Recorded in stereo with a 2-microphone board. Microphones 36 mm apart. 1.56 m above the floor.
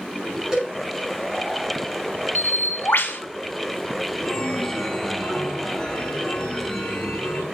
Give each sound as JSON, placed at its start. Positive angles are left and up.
{"t": 0.5, "sound": "a cowbell", "side_deg": -15, "distance_m": 6.0}
{"t": 2.4, "sound": "a bird", "side_deg": 75, "distance_m": 1.3}
{"t": 4.2, "sound": "a chime", "side_deg": 20, "distance_m": 2.0}